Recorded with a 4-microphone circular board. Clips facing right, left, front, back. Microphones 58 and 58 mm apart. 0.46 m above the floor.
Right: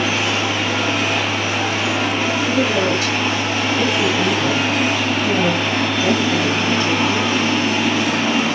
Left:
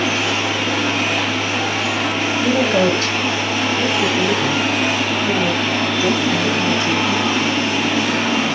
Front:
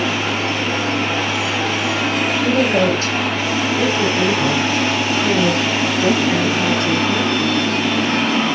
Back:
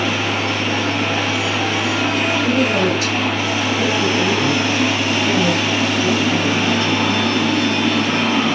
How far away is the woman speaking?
About 1.9 m.